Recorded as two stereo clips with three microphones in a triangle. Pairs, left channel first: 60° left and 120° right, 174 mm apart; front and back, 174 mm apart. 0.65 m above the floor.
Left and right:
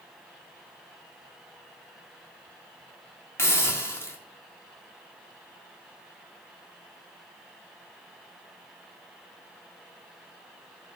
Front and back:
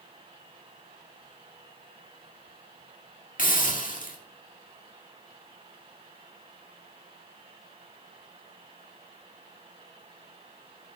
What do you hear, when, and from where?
3.4 s a hiss: 10° right, 1.7 m